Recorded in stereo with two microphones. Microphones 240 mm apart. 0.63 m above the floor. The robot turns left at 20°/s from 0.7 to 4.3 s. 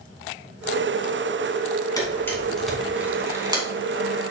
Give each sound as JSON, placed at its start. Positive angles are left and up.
{"t": 2.0, "sound": "a camera shutter", "side_deg": 15, "distance_m": 2.5}